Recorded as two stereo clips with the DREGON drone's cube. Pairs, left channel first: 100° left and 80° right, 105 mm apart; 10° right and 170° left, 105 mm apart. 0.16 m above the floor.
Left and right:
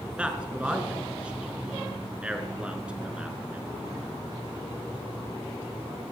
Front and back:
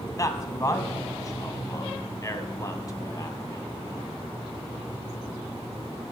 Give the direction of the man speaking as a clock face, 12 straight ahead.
12 o'clock.